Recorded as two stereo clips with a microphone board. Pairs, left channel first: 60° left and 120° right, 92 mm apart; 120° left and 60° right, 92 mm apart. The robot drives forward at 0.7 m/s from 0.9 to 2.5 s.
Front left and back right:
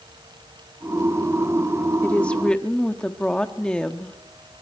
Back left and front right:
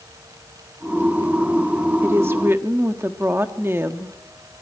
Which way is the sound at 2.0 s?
10° right.